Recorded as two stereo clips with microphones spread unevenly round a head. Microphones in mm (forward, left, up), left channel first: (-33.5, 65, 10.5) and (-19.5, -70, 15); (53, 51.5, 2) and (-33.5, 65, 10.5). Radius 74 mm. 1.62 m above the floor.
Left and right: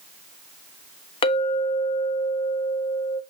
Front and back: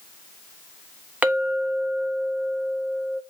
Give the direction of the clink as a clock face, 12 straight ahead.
8 o'clock.